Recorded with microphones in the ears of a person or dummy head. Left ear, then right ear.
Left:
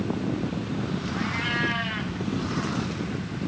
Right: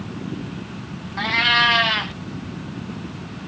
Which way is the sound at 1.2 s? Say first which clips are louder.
Right 11 dB; 45° right (ahead or behind).